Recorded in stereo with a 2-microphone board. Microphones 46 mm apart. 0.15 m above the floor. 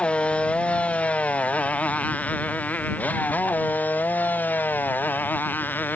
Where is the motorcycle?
25° left (ahead or behind); by 6.0 s 45° left (ahead or behind).